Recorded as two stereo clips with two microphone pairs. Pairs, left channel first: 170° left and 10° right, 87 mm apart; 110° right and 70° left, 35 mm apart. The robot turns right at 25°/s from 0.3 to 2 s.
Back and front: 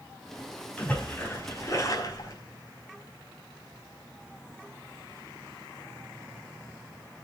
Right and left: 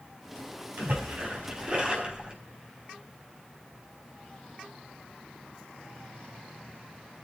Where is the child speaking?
I don't hear a child speaking.